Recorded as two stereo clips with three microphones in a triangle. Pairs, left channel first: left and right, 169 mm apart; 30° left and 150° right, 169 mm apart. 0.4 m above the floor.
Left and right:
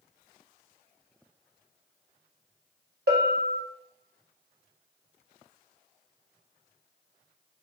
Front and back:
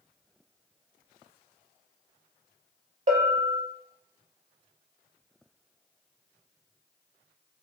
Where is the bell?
105° right, 0.6 m.